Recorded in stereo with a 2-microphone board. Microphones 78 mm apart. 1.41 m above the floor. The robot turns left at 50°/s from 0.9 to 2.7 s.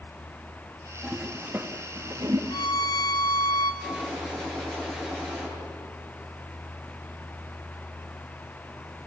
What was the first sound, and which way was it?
A toilet flushing, centre (ahead or behind).